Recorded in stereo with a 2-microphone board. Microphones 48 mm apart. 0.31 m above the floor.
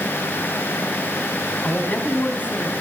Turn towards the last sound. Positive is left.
turn(degrees=45)  # may be behind; listen again after turning